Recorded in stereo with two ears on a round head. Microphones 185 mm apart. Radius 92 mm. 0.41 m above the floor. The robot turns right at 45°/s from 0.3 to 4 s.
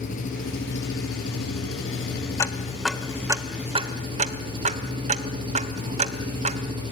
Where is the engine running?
40° left, 7 m; by 6.9 s 155° right, 7 m.